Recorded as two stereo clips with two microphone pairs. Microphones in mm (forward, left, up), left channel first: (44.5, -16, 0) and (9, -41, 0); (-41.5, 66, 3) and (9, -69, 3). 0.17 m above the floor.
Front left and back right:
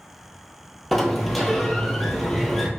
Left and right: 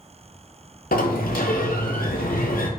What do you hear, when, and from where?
0.9 s a sliding door: 115° left, 0.7 m